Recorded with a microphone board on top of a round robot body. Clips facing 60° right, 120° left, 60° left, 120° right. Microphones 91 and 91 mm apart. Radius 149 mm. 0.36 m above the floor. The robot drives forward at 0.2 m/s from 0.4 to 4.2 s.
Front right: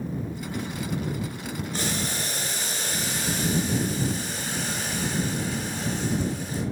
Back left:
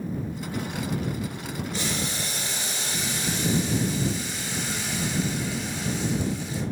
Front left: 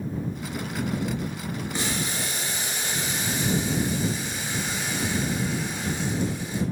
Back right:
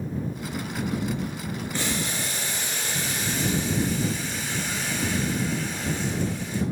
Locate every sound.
1.7 s boiling: 15° right, 4 m; by 6.6 s 20° right, 3.5 m